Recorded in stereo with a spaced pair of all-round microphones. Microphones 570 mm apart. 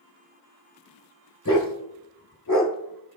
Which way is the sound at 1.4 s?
35° left (ahead or behind).